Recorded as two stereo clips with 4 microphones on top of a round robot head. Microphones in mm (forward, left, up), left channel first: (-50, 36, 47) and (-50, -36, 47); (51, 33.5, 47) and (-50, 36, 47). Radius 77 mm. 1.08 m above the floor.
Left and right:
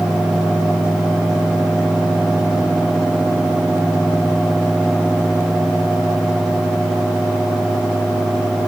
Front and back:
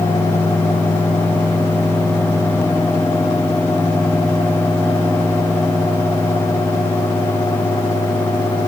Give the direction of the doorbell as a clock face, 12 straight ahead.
I don't hear a doorbell.